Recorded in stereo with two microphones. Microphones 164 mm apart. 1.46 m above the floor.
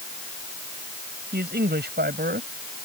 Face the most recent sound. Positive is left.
turn(degrees=-80)